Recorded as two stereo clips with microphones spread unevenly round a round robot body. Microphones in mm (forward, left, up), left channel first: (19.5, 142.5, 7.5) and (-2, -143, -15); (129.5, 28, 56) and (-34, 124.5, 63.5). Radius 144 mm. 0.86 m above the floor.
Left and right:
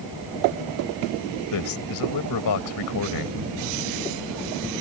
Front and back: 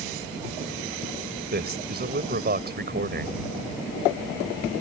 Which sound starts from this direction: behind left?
A man speaking, at 1.5 s.